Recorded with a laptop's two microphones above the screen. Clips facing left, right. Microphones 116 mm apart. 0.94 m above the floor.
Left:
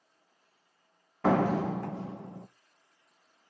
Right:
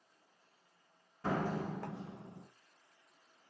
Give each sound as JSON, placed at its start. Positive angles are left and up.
{"t": 1.2, "sound": "a door slam", "side_deg": 90, "distance_m": 0.8}